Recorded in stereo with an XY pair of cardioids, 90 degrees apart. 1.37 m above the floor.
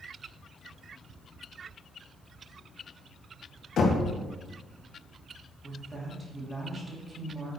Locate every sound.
3.8 s knocking: 65° left, 1.7 m
5.6 s a woman speaking: 30° right, 3 m